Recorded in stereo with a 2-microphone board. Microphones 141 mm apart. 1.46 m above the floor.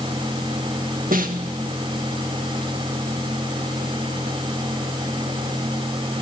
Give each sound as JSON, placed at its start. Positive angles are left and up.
{"t": 1.1, "sound": "a snare drum", "side_deg": -80, "distance_m": 1.9}